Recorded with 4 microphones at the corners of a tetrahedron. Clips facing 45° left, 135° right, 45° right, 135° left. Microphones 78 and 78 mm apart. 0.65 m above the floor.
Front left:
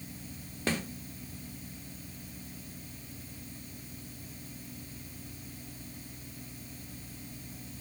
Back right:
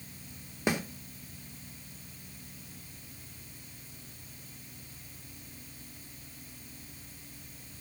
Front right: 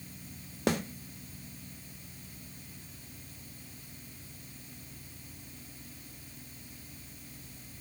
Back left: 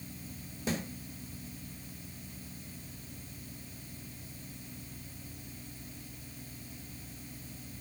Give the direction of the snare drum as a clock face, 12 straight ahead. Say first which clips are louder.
Back right 2 dB, front right 5 dB; 2 o'clock.